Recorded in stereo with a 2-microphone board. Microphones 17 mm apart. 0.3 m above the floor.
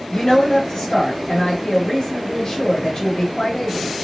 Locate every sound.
0.1 s a woman speaking: 40° left (ahead or behind), 1.3 m